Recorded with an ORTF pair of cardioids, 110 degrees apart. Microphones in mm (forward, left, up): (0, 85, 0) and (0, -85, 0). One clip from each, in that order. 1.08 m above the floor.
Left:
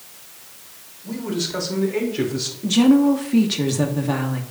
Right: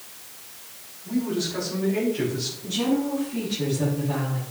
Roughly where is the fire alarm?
I don't hear a fire alarm.